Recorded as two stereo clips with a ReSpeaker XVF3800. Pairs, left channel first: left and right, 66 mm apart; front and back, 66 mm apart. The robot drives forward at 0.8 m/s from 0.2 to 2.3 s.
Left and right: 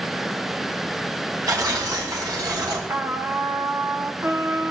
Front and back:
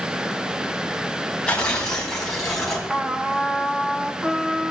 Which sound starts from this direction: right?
Tearing paper, at 1.5 s.